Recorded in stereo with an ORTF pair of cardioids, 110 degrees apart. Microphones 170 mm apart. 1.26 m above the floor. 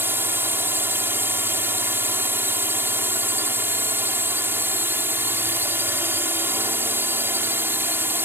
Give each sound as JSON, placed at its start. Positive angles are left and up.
{"t": 0.0, "sound": "a drone", "azimuth_deg": -15}